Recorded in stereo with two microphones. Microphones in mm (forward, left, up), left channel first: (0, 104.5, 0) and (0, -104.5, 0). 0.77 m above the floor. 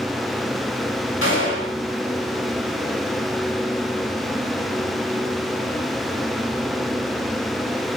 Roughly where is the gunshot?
Left.